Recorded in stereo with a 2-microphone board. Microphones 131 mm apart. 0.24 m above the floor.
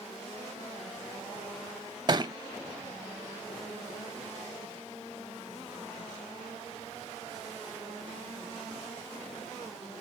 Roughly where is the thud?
Right.